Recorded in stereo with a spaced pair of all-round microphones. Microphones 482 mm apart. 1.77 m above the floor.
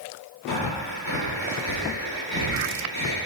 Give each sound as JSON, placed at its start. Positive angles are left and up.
{"t": 0.5, "sound": "breathing", "side_deg": 70, "distance_m": 3.5}